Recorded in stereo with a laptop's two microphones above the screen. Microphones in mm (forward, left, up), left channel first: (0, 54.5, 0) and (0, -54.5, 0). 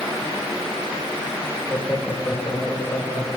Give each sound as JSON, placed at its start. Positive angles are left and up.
{"t": 1.7, "sound": "laughter", "side_deg": 30, "distance_m": 2.5}